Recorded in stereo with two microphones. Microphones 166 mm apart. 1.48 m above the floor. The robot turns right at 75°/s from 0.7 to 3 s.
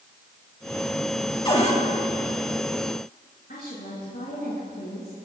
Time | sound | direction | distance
1.4 | a cupboard door | 30° left (ahead or behind) | 2.5 m
3.5 | a woman speaking | 70° left (ahead or behind) | 6.5 m